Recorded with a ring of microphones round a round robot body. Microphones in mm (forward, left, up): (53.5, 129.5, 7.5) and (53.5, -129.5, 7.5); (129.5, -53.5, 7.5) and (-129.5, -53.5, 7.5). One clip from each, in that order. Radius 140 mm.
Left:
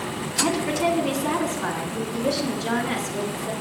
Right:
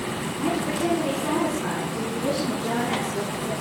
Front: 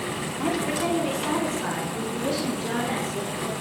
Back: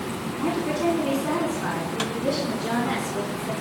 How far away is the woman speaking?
About 5 m.